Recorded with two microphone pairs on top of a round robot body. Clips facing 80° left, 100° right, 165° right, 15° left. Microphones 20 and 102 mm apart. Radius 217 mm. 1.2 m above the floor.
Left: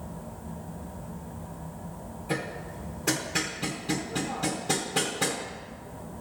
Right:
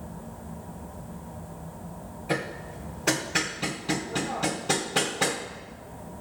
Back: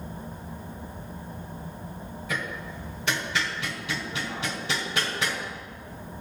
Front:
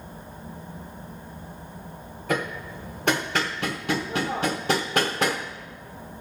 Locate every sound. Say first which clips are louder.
2.3 s hammering: right 2 dB, front 6 dB; 30° right, 0.8 m